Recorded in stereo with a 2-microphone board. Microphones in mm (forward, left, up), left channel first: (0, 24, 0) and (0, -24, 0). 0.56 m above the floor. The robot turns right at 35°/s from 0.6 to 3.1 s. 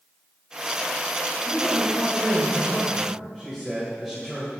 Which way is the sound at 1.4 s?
125° left.